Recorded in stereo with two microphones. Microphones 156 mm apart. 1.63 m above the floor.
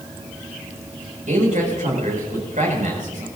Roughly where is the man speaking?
Right.